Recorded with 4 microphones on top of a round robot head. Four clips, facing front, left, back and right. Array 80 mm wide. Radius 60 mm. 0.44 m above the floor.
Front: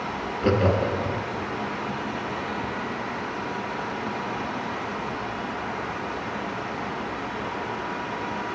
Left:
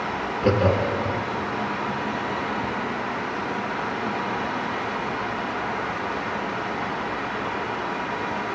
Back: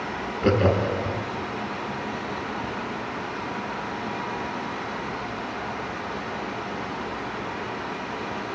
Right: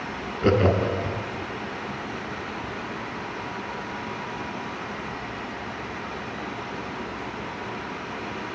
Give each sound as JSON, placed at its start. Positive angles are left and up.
{"t": 0.4, "sound": "laughter", "azimuth_deg": -115, "distance_m": 1.2}